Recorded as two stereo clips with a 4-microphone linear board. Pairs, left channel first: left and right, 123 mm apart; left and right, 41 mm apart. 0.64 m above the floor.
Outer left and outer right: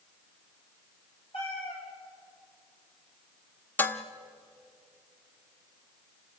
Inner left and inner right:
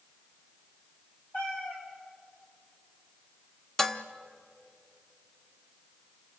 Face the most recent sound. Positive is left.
turn(degrees=15)  # may be behind; listen again after turning